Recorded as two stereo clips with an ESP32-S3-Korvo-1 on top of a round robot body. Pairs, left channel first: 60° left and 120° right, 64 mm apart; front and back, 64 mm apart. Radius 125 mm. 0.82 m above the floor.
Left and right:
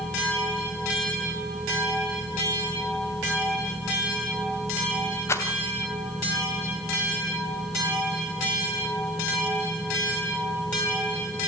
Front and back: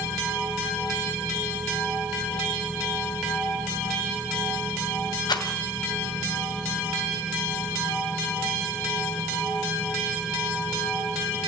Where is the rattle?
10° left, 2.5 m.